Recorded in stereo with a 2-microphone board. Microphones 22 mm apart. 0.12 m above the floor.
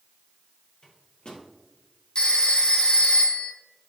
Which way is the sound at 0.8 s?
45° left (ahead or behind).